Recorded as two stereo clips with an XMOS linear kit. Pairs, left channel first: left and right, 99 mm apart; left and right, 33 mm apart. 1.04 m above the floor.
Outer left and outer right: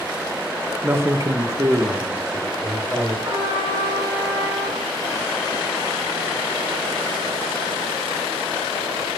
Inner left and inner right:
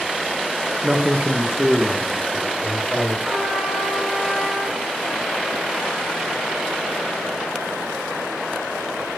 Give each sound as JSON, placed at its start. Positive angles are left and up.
{"t": 0.8, "sound": "a man speaking", "side_deg": -20, "distance_m": 0.8}
{"t": 3.2, "sound": "a trumpet", "side_deg": -45, "distance_m": 2.5}